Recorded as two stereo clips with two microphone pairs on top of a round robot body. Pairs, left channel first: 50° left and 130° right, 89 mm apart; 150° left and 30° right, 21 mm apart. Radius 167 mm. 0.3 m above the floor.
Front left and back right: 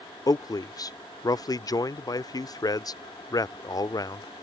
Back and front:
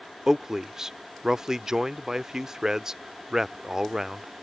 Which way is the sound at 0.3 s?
20° left.